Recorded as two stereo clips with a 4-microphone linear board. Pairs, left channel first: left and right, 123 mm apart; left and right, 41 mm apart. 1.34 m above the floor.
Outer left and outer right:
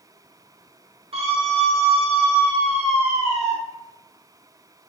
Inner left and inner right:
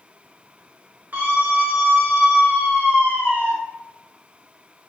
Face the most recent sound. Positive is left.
turn(degrees=-70)  # may be behind; listen again after turning